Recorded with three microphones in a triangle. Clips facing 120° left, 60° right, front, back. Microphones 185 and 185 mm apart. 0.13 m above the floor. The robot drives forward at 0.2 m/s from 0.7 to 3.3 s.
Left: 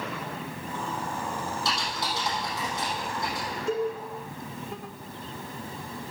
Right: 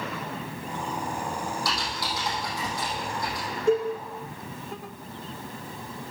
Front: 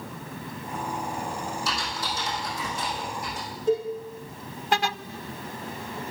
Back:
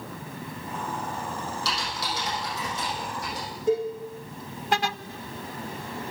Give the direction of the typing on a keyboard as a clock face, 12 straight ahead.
6 o'clock.